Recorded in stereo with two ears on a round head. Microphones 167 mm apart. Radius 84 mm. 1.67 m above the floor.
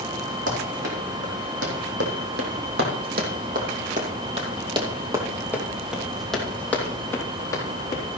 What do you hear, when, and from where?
0.5 s running footsteps: 65° right (ahead or behind), 4.5 m; by 8.0 s 20° left (ahead or behind), 4 m